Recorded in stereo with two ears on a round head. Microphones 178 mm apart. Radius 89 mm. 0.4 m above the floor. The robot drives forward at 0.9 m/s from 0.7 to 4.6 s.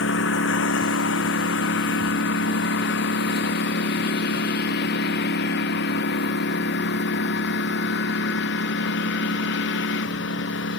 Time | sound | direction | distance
0.0 | a lawn mower | 65° left (ahead or behind) | ?